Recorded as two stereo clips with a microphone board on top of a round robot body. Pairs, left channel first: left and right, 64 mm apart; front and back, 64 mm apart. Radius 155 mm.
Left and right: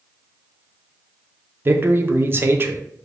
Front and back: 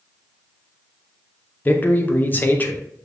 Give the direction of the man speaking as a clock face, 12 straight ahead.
2 o'clock.